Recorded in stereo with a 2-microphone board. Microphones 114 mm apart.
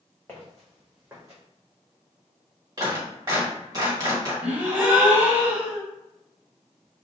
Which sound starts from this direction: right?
A clap, at 2.8 s.